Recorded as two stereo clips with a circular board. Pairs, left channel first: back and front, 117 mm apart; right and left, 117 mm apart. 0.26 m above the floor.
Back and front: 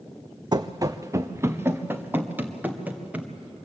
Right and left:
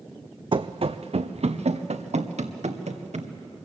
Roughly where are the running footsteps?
Ahead left.